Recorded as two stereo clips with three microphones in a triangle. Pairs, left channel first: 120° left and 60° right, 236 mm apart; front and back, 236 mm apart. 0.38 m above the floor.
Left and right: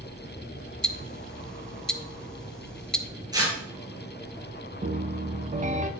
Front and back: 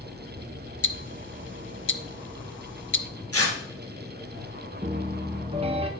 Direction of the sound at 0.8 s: 35° left.